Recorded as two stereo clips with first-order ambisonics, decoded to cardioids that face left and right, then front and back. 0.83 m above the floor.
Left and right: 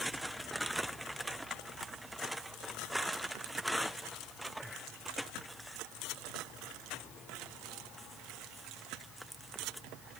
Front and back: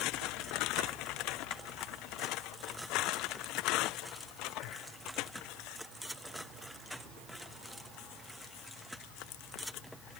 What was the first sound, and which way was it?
Only background noise.